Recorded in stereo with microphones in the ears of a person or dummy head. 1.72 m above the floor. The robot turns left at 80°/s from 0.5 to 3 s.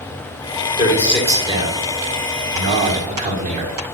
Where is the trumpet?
No trumpet in this recording.